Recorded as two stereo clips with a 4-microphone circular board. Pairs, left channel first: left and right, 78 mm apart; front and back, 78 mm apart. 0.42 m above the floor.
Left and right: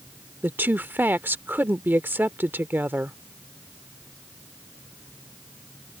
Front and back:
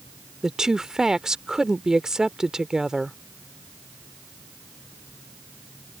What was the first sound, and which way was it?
A woman speaking, 110° right.